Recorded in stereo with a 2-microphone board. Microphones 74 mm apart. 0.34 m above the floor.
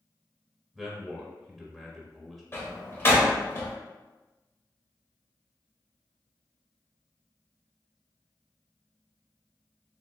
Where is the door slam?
30° left (ahead or behind), 1.0 m.